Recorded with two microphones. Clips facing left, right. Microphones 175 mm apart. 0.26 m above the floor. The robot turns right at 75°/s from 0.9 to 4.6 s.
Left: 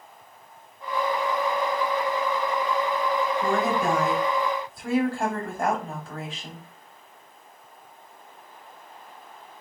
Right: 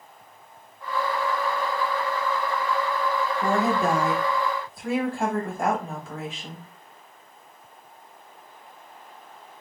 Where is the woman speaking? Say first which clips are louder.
Right 4 dB; 90° right, 1.3 m; by 6.7 s straight ahead, 1.3 m.